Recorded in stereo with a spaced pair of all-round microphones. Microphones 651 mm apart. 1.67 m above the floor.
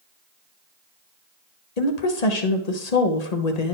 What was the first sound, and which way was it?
A woman speaking, 70° left (ahead or behind).